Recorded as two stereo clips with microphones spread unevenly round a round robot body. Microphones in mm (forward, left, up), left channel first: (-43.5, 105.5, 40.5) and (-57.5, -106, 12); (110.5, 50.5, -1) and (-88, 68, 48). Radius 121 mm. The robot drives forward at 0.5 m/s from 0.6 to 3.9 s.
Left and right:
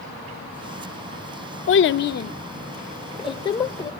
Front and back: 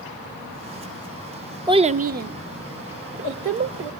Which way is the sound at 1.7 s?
100° left.